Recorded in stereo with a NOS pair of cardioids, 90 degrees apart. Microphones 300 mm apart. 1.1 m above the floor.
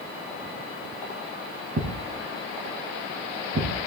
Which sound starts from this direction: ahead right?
A thud, at 1.8 s.